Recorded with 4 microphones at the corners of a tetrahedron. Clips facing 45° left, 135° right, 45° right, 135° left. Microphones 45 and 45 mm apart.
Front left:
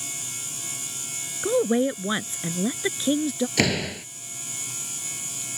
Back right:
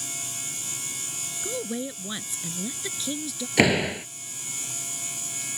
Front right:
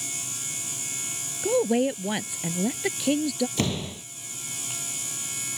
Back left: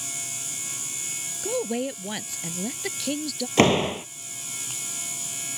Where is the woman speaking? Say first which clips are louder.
Front left 11 dB, front right 5 dB; 20° left.